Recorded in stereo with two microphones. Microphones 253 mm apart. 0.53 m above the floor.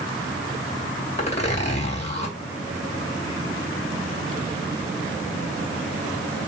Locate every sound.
1.2 s a zipper: 25° left (ahead or behind), 2 m